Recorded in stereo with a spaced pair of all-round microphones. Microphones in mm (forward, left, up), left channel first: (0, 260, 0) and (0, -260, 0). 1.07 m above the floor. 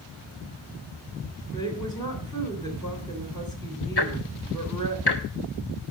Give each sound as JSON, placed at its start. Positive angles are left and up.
{"t": 1.5, "sound": "a woman speaking", "side_deg": 10, "distance_m": 3.5}
{"t": 4.0, "sound": "ticking", "side_deg": 50, "distance_m": 1.4}